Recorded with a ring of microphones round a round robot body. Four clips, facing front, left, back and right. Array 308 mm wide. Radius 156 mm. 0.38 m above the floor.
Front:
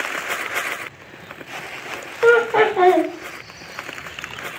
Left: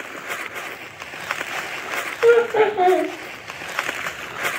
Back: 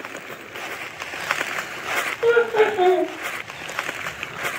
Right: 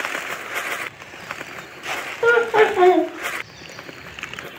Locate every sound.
2.2 s laughter: 50° right, 1.6 m